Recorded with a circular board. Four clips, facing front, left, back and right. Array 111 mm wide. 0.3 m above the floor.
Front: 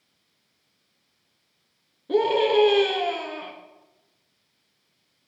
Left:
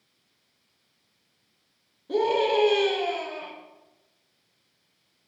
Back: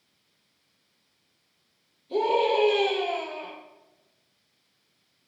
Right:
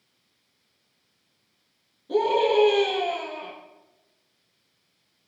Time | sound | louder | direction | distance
2.1 | a scream | right 2 dB, front 3 dB | 10° left | 3.5 m